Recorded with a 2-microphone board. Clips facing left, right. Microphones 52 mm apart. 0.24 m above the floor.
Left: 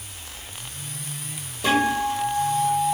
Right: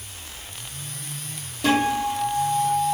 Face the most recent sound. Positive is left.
turn(degrees=0)  # may be behind; listen again after turning